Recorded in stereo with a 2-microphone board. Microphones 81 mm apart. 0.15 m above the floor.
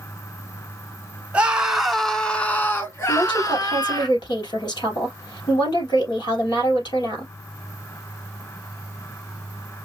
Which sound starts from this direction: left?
A woman speaking, at 3.1 s.